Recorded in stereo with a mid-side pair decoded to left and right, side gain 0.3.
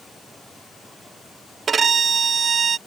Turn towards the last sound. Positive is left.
turn(degrees=-65)